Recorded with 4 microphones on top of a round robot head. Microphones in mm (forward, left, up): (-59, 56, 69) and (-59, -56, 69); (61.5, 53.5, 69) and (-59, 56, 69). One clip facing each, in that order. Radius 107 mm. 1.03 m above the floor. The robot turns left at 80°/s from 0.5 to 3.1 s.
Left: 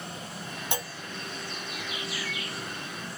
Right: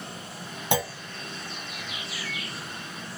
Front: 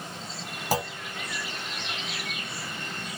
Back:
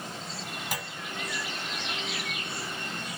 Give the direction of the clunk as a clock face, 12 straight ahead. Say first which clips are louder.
Right 9 dB, front 12 dB; 2 o'clock.